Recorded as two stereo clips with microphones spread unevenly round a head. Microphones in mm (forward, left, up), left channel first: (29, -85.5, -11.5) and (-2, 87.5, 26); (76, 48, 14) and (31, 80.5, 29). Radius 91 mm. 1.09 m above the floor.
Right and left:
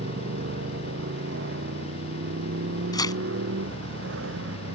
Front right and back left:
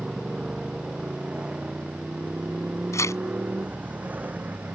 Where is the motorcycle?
70° left; by 4.7 s 90° left.